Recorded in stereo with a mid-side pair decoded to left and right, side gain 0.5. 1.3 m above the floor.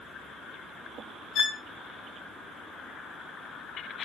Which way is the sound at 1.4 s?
50° left.